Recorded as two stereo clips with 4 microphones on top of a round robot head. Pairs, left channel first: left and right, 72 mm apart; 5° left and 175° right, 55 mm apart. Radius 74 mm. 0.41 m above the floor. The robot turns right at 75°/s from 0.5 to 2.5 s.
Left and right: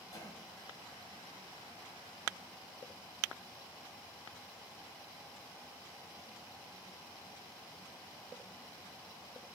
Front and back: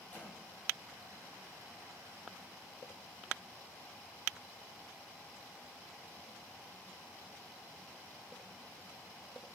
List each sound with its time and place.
0.1 s a cough: 65° left, 3 m